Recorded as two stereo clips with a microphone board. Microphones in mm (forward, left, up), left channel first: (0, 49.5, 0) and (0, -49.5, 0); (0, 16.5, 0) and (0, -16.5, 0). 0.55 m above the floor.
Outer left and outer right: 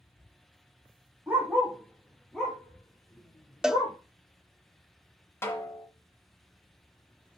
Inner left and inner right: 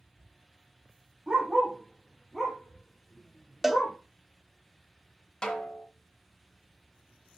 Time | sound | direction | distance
1.3 | a dog barking | 15° right (ahead or behind) | 3.5 m
3.6 | a cowbell | 5° right (ahead or behind) | 0.6 m
5.4 | a snare drum | 25° left (ahead or behind) | 1.7 m